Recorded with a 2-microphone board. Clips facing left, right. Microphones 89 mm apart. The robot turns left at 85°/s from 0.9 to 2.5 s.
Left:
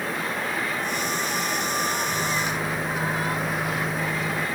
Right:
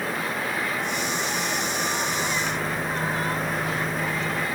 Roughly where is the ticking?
No ticking in this recording.